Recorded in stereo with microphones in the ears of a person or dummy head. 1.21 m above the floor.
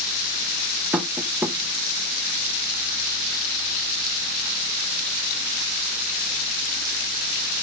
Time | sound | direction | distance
0.9 | tapping | centre (ahead or behind) | 0.6 m